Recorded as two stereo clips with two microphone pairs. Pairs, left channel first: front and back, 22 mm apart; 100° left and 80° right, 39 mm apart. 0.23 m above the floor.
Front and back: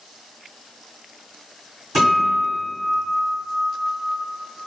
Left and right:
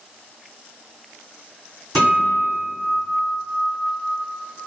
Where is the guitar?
125° left, 1.1 m.